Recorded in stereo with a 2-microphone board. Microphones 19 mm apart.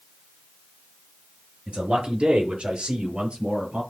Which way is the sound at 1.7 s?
80° right.